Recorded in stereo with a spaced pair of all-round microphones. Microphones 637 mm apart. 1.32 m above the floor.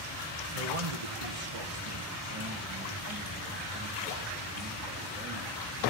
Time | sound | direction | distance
0.6 | a man speaking | 60° right (ahead or behind) | 1.1 m